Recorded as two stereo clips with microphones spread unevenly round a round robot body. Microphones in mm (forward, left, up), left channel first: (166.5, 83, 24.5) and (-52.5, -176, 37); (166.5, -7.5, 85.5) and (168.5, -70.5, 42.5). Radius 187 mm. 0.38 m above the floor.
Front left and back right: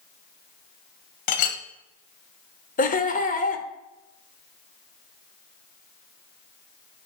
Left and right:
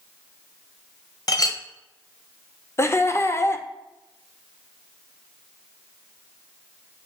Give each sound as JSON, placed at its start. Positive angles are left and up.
{"t": 1.3, "sound": "a clink", "azimuth_deg": 50, "distance_m": 1.3}
{"t": 2.8, "sound": "laughter", "azimuth_deg": 10, "distance_m": 1.3}